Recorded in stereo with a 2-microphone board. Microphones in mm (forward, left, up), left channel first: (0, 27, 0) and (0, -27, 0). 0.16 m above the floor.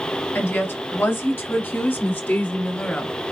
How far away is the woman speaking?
About 1.8 m.